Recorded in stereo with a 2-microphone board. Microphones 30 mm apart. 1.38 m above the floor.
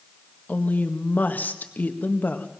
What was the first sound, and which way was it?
A woman speaking, 70° left (ahead or behind).